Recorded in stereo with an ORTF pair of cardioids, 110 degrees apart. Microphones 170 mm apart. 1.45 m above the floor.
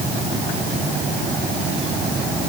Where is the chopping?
No chopping in this recording.